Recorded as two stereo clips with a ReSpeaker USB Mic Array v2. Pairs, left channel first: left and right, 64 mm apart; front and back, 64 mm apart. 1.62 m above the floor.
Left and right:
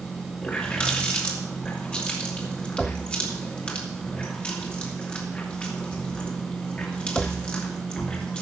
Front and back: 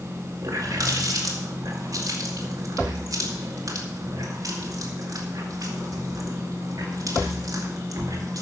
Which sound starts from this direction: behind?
A running tap, at 0.4 s.